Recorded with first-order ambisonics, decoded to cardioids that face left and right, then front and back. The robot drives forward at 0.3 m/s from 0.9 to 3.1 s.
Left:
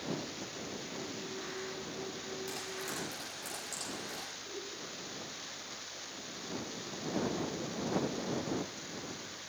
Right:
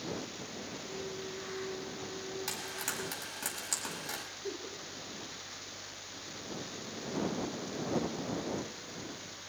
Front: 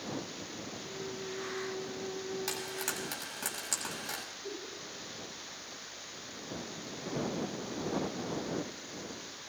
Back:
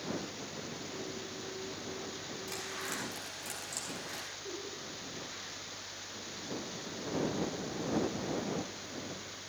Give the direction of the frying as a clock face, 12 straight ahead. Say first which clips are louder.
Right 3 dB, front 2 dB; 1 o'clock.